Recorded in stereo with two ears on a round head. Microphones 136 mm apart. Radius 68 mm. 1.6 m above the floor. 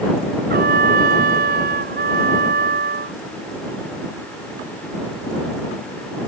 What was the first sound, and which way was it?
A trumpet, 60° right (ahead or behind).